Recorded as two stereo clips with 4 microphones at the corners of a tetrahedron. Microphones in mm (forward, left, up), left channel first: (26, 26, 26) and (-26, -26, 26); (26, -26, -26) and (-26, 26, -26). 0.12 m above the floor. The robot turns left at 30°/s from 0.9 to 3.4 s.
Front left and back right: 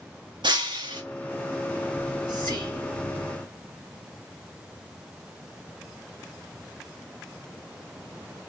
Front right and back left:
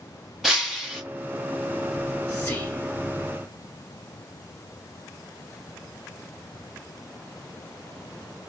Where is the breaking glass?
135° right, 0.7 m; by 1.0 s 140° right, 0.7 m.